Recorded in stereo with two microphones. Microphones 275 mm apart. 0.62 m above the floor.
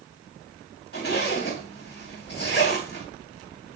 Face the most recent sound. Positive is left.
turn(degrees=40)  # may be behind; listen again after turning